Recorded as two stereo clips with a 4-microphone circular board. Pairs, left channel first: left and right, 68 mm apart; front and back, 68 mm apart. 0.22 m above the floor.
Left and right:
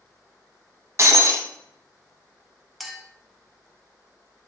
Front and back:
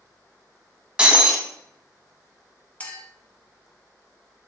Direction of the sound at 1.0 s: 110° right.